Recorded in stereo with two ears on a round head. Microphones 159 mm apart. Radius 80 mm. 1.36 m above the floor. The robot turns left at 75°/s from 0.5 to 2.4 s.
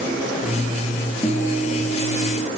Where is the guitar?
165° left, 2 m; by 2.5 s 80° left, 2 m.